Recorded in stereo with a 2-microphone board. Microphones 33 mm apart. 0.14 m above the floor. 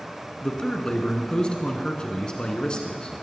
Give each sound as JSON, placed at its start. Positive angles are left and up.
{"t": 0.4, "sound": "a man speaking", "side_deg": 30, "distance_m": 1.7}